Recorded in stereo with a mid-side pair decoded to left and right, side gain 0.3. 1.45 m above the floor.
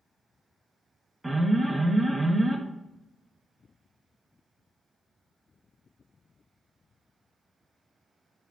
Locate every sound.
1.2 s an alarm: 25° right, 1.6 m